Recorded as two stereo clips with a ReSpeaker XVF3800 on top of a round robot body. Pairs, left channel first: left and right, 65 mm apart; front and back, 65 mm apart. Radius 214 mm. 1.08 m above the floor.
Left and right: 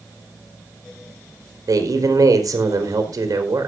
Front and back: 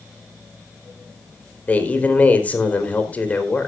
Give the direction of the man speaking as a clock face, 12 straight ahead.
2 o'clock.